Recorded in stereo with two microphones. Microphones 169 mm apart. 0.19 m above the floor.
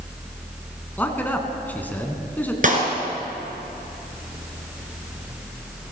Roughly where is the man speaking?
Centre.